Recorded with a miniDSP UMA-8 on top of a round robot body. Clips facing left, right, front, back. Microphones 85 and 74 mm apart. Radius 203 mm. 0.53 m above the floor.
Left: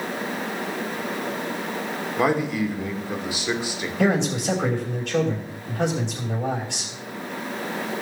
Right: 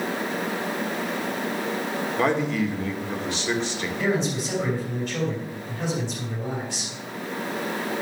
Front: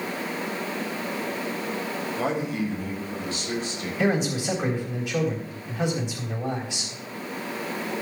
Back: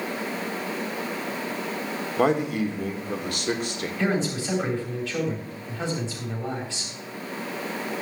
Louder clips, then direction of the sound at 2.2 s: Left 2 dB, back 6 dB; 170° left.